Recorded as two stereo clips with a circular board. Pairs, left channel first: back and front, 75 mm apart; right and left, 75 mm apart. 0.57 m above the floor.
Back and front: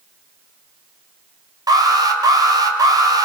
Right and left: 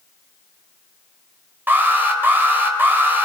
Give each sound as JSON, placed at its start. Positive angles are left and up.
{"t": 1.7, "sound": "an alarm", "azimuth_deg": 25, "distance_m": 3.0}